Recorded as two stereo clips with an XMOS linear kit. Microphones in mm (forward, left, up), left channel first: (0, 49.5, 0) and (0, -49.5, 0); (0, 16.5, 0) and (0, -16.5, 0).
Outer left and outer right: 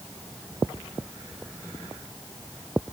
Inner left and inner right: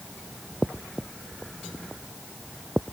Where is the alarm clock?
I don't hear an alarm clock.